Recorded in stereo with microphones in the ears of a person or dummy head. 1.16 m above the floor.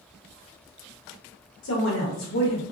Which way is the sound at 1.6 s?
60° left (ahead or behind).